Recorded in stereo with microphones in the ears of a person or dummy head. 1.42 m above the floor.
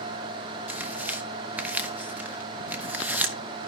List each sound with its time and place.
0.7 s tearing paper: 5° right (ahead or behind), 0.9 m